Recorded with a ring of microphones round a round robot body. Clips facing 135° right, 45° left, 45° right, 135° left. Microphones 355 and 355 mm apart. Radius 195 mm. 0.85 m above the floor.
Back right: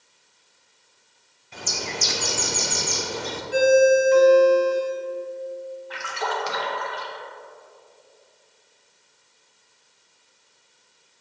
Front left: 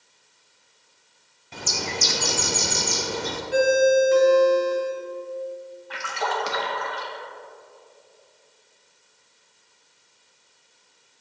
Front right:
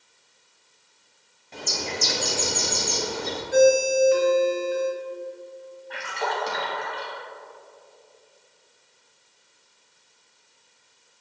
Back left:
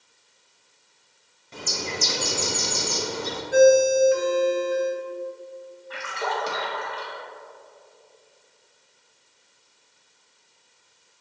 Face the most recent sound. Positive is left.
turn(degrees=55)